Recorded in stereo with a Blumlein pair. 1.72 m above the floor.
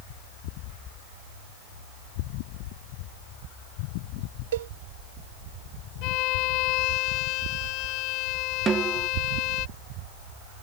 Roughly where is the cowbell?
Ahead right.